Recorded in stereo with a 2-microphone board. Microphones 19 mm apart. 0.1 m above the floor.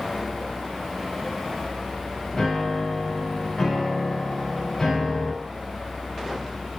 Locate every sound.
2.3 s a piano: 25° left (ahead or behind), 6 m